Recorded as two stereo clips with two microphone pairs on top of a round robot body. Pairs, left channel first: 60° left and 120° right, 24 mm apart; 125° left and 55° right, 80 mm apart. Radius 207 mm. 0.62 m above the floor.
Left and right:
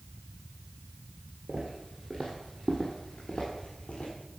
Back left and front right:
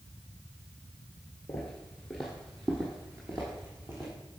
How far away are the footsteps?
About 0.8 m.